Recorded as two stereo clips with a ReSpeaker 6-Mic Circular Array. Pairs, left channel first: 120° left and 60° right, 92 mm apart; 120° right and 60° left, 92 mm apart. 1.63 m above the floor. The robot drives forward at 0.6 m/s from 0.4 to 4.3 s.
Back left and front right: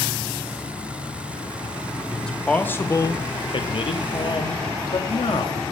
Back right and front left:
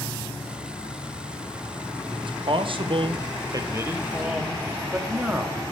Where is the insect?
130° right, 2.5 m; by 5.7 s 155° right, 4.5 m.